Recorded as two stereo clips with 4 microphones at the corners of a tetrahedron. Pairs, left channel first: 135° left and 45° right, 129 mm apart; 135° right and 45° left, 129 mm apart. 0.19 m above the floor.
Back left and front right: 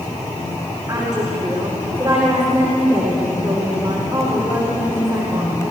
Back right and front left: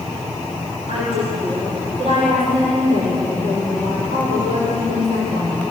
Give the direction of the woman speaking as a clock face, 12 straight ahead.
11 o'clock.